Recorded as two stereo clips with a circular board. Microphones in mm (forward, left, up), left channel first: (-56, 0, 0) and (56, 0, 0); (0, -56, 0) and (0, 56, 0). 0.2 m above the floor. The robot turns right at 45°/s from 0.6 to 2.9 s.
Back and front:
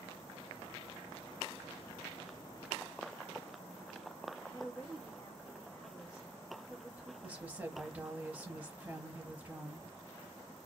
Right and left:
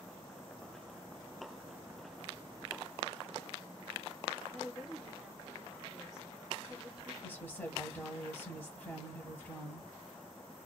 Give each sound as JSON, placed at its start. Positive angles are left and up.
{"t": 4.4, "sound": "a woman speaking", "azimuth_deg": 160, "distance_m": 1.8}
{"t": 7.2, "sound": "a woman speaking", "azimuth_deg": -45, "distance_m": 1.0}